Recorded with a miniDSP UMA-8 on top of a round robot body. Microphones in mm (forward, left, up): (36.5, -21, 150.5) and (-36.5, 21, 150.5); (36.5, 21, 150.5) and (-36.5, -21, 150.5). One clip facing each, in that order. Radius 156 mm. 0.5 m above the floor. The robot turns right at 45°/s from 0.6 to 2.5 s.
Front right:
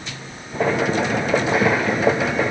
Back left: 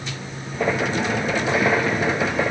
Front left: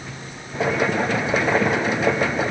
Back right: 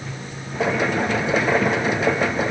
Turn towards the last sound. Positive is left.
No sound to turn to.